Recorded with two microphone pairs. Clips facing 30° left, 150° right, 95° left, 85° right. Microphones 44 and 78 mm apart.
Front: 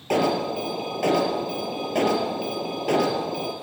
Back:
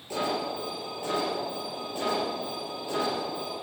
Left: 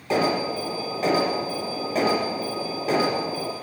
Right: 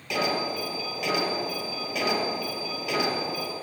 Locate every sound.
0.1 s an alarm: 45° left, 4 m